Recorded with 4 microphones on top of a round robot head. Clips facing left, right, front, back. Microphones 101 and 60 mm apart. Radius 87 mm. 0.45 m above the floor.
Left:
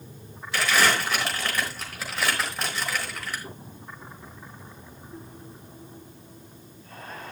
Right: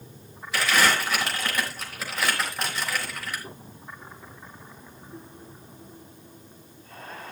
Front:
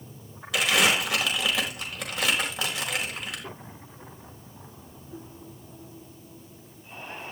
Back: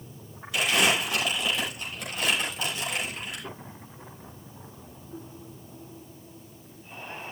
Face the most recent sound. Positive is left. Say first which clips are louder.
# even, front 1 dB
turn(degrees=0)